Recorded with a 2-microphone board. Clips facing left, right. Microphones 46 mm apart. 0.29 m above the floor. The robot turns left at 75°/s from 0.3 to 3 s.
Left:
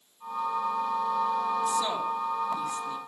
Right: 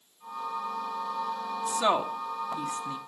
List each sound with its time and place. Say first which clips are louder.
1.7 s a woman speaking: right 2 dB; 20° right (ahead or behind), 2.5 m; by 3.0 s 45° right (ahead or behind), 2.5 m